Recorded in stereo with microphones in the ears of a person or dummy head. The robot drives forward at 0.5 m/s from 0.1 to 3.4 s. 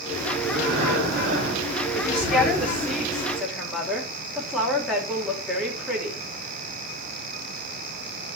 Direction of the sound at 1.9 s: 10° left (ahead or behind).